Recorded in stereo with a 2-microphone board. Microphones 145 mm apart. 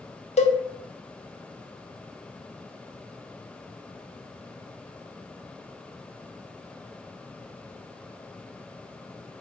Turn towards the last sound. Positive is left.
turn(degrees=50)  # may be behind; listen again after turning